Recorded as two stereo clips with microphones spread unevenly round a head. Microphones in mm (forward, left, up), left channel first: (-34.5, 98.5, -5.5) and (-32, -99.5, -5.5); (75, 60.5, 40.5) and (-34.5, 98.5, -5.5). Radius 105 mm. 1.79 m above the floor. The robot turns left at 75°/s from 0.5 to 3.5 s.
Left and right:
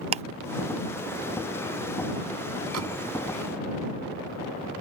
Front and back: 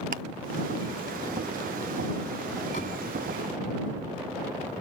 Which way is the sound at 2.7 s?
65° right.